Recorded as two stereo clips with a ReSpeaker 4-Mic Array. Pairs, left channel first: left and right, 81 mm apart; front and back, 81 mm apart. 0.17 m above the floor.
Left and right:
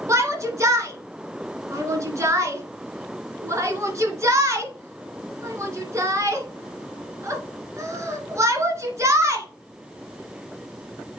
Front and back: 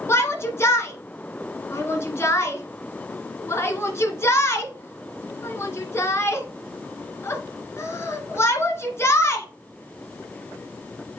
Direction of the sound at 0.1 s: 50° right.